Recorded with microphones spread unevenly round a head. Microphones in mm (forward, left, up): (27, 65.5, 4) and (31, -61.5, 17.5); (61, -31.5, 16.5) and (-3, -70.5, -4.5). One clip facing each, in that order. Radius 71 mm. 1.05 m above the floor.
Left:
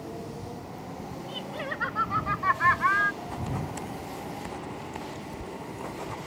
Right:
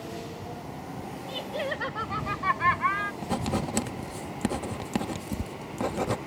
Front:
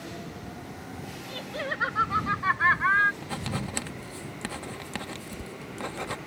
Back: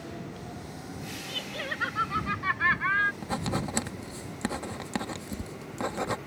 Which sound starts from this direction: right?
Writing, at 3.2 s.